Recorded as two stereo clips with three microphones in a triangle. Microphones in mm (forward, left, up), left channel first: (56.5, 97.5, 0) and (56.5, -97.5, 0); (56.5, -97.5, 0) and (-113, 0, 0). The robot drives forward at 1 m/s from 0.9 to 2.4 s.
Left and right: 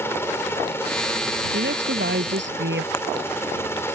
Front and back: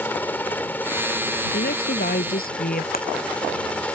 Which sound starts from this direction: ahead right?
A woman speaking, at 1.5 s.